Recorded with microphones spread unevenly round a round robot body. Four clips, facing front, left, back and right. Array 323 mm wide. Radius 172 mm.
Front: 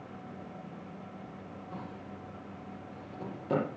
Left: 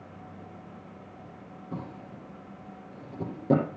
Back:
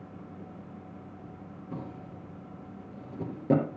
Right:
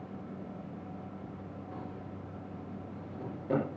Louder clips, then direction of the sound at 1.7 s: Left 6 dB, back 4 dB; 130° left.